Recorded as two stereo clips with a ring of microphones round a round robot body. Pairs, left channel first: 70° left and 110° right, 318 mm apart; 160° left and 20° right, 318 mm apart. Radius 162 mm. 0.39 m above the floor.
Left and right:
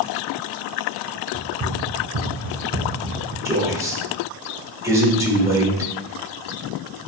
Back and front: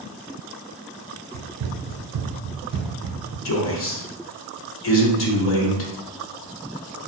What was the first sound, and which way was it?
Running footsteps, 50° right.